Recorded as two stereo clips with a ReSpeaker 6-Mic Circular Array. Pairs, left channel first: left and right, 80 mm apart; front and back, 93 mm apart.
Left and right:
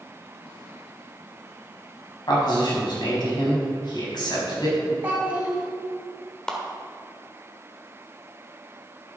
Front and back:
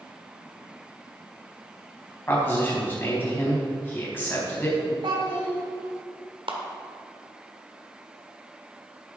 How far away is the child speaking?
About 3.5 m.